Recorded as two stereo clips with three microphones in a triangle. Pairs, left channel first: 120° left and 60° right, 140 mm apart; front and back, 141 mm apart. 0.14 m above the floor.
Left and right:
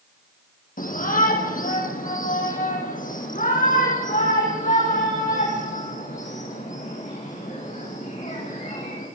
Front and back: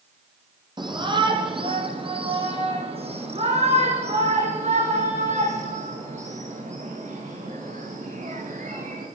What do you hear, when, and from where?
0.8 s a shout: 125° left, 5 m; by 9.1 s 150° left, 10.5 m